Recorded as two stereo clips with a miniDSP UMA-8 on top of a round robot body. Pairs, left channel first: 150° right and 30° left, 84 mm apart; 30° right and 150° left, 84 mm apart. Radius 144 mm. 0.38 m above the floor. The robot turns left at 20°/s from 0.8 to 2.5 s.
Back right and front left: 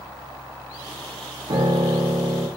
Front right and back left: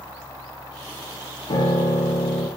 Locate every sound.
1.5 s a piano: 5° right, 9.5 m; by 2.5 s 25° right, 9.5 m